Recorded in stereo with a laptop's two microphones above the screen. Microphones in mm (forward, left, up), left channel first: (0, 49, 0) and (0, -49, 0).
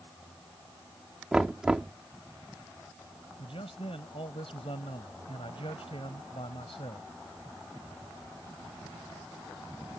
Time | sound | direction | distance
1.3 | knocking | 5° right (ahead or behind) | ?
3.4 | a man speaking | 75° left (ahead or behind) | ?